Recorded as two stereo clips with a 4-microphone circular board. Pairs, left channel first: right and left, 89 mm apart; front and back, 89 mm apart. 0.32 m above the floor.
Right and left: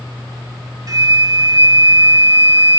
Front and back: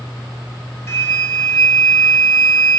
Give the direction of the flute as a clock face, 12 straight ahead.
10 o'clock.